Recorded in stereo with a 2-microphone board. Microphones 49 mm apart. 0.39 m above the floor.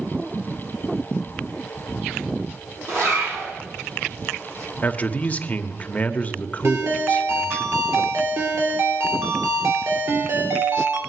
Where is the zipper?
60° right (ahead or behind), 9 m.